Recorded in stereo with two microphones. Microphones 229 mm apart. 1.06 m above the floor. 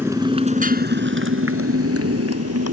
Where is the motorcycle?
10° right (ahead or behind); by 2.7 s 85° right.